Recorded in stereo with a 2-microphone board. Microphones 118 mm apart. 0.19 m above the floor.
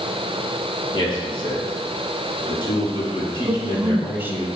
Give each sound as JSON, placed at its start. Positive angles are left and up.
{"t": 0.9, "sound": "a man speaking", "side_deg": 40, "distance_m": 4.5}
{"t": 3.5, "sound": "a woman speaking", "side_deg": -15, "distance_m": 1.0}